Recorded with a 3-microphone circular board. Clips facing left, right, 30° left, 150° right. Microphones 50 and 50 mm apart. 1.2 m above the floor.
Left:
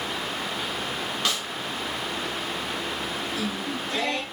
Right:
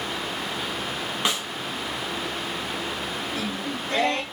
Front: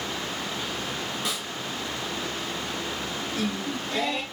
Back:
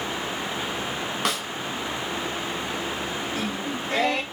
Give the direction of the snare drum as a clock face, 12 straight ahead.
5 o'clock.